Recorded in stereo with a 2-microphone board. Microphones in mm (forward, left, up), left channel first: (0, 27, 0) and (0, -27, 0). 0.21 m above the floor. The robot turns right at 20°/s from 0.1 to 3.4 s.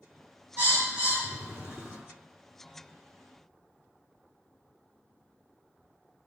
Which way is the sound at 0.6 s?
40° right (ahead or behind).